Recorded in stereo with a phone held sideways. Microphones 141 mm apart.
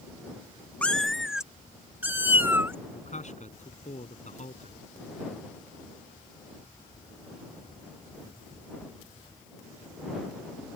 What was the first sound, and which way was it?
A cat meowing, 10° left (ahead or behind).